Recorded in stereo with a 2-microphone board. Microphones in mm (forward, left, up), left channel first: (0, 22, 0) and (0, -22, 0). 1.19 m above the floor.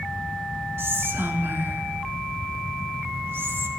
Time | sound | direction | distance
0.8 | whispering | 65° right (ahead or behind) | 2 m